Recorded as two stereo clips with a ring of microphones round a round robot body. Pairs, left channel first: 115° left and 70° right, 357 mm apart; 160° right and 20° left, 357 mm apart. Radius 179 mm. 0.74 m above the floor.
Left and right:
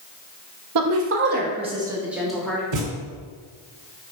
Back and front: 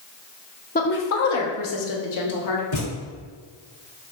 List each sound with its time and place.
0.8 s a woman speaking: 95° right, 0.7 m; by 2.6 s 165° right, 1.2 m
2.7 s a thud: 105° right, 1.5 m